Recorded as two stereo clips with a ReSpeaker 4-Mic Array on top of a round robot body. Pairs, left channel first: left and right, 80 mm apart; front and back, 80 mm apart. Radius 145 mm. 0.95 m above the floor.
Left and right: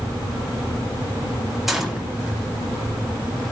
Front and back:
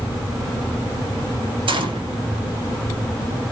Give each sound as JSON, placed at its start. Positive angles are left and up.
{"t": 1.7, "sound": "a gunshot", "azimuth_deg": -175, "distance_m": 2.0}